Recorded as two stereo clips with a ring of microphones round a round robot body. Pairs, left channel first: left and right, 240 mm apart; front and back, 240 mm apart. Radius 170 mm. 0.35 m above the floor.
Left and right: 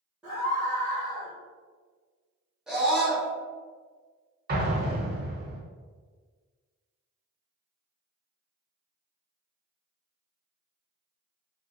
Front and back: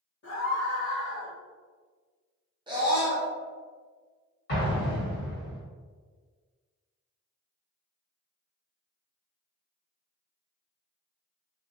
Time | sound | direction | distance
0.2 | a scream | 5° right | 1.1 m
2.7 | a scream | 170° right | 0.8 m
4.5 | an explosion | 45° right | 1.0 m